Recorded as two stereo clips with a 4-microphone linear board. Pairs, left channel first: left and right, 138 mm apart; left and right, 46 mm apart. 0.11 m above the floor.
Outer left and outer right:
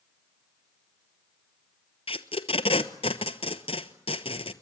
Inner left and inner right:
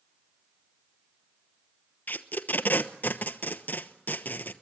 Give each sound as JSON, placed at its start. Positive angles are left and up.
{"t": 2.1, "sound": "tape being pulled", "side_deg": 45, "distance_m": 0.9}